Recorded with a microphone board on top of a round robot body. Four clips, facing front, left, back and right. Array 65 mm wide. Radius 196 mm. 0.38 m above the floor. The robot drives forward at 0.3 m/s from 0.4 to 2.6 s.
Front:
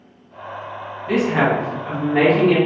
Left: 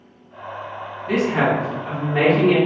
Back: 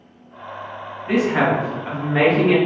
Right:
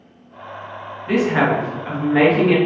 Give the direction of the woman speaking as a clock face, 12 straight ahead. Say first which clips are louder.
Right 2 dB, even; 4 o'clock.